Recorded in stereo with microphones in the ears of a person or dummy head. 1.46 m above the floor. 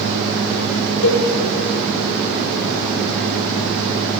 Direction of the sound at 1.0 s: 65° left (ahead or behind).